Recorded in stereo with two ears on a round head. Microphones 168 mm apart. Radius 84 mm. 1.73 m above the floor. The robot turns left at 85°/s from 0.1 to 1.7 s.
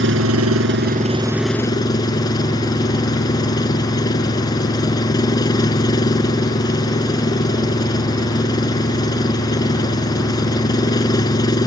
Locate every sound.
0.0 s an engine running: 65° right; by 11.7 s 160° left